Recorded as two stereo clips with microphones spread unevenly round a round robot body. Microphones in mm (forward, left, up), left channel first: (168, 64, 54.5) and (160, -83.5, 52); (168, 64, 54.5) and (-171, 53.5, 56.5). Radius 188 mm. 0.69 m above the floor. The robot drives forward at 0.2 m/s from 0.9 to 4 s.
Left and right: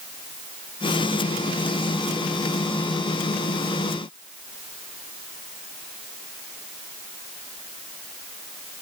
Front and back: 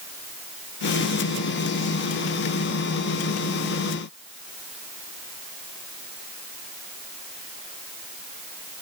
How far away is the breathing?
I don't hear breathing.